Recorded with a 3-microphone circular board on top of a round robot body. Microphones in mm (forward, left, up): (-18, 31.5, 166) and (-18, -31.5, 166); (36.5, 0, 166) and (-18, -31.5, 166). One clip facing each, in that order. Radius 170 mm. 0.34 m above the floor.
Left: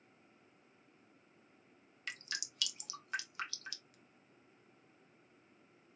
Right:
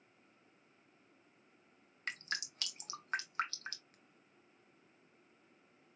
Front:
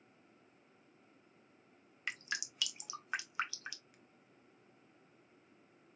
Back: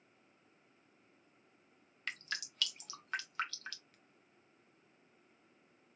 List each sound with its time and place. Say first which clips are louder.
2.1 s dripping: right 4 dB, front 1 dB; 45° right, 1.3 m